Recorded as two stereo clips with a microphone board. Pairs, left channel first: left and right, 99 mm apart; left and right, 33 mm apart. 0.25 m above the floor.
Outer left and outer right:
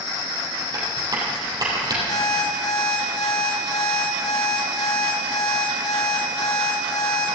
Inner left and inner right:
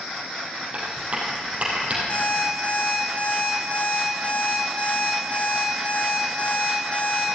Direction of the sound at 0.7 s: 40° right (ahead or behind).